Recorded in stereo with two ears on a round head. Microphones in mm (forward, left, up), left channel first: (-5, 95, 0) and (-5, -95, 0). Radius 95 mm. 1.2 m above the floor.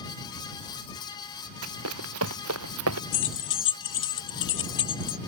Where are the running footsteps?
80° right.